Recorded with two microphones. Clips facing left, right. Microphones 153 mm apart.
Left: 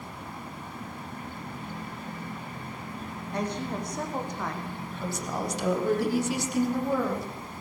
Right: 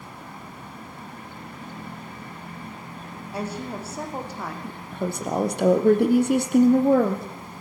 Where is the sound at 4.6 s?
55° right (ahead or behind), 3.5 m.